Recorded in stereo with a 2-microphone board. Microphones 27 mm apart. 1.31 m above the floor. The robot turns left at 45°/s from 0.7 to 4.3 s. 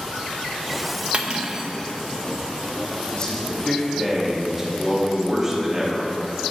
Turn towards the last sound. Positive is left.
turn(degrees=-10)